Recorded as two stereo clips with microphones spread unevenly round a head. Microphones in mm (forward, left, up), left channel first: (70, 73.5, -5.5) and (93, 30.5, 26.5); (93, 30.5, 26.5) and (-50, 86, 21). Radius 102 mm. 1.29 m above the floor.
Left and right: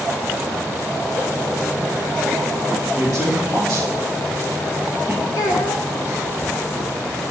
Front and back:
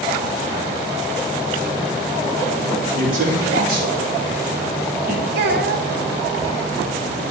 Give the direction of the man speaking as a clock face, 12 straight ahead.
5 o'clock.